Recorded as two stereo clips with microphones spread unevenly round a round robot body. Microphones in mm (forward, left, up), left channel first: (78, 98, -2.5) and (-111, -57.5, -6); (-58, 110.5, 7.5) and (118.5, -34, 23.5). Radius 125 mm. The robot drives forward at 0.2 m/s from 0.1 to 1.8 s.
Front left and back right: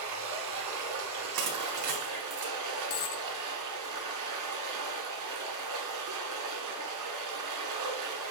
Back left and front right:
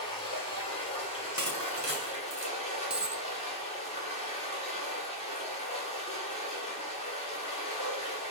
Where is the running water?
145° right, 1.5 m; by 8.3 s 150° right, 1.8 m.